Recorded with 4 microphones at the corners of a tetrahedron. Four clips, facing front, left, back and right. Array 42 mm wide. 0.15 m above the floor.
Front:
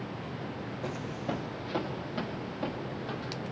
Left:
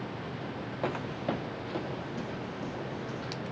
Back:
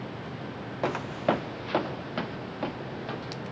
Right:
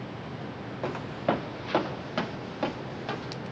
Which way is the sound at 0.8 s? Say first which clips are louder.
Right 4 dB, back 10 dB; 165° left.